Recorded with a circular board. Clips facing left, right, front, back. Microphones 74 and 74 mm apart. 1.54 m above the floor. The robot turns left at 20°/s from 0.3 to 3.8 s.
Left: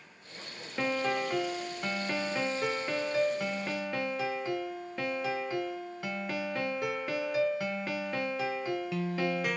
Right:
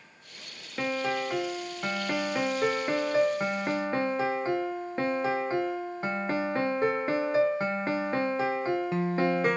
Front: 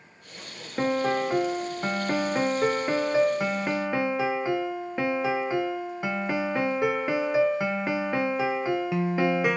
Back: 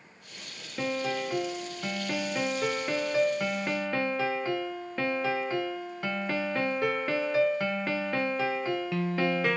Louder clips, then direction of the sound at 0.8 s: Right 1 dB, front 6 dB; 5° right.